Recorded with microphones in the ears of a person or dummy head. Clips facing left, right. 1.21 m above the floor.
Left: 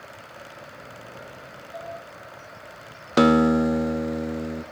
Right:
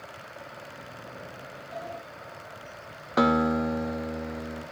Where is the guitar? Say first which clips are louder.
Left 6 dB; 40° left (ahead or behind), 0.7 m.